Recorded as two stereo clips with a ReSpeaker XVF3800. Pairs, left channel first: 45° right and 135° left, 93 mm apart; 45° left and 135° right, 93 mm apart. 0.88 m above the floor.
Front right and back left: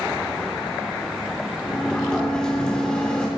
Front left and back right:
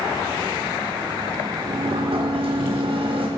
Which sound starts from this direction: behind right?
A sliding door, at 1.7 s.